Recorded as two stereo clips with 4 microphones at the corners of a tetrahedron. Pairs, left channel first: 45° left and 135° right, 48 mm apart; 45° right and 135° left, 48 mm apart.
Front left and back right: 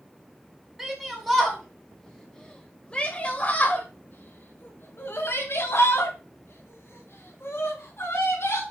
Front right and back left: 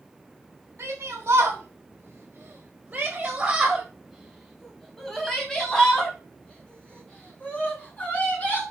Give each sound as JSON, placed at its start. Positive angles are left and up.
{"t": 0.8, "sound": "a shout", "azimuth_deg": 150, "distance_m": 1.9}